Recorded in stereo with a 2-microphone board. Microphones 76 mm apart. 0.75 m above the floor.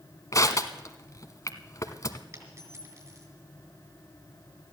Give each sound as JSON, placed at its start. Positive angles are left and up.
{"t": 0.3, "sound": "crushing", "side_deg": 45, "distance_m": 1.1}
{"t": 2.3, "sound": "a dropped coin", "side_deg": -40, "distance_m": 4.5}